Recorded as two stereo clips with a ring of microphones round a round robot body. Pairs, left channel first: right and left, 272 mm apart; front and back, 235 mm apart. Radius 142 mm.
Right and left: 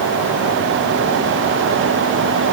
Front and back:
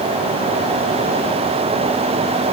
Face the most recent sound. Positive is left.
No sound to turn to.